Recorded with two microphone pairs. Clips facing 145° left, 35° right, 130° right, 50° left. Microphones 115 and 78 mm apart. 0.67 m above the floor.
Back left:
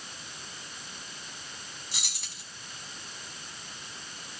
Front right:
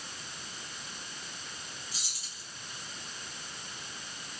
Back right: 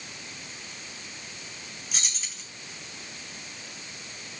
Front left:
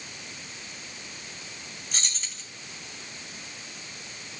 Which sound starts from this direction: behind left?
Keys jangling, at 1.9 s.